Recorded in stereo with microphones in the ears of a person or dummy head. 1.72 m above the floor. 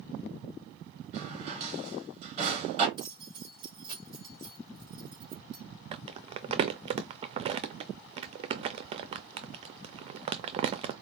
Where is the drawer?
35° right (ahead or behind), 2.5 m.